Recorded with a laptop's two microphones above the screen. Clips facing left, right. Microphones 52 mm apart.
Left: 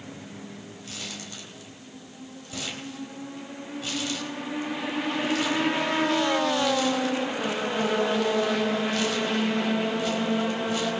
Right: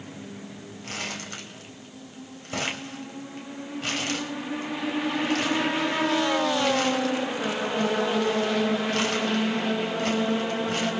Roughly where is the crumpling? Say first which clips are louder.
Right 7 dB; right.